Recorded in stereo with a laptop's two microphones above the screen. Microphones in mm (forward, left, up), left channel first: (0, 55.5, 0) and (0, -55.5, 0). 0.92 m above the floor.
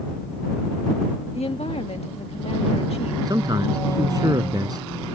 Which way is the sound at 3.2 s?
35° right (ahead or behind).